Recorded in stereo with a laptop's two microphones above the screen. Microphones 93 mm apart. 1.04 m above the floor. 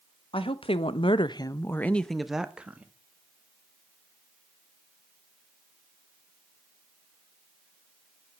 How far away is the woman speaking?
About 1.1 m.